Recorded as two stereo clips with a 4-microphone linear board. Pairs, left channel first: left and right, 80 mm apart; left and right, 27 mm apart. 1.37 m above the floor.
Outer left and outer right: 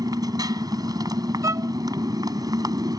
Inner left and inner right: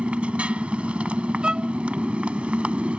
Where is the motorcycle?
55° right (ahead or behind).